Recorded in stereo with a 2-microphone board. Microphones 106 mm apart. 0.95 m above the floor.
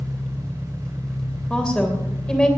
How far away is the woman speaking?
About 3 m.